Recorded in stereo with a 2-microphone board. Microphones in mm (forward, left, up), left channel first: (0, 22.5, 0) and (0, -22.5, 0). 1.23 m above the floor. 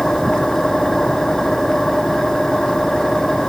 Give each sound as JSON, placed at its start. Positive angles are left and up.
{"t": 0.0, "sound": "an engine running", "side_deg": 10}